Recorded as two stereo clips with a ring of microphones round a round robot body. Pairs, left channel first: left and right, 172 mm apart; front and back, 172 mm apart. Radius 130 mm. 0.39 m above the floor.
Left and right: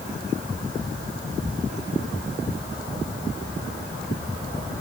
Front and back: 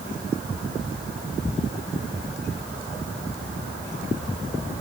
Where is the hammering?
No hammering in this recording.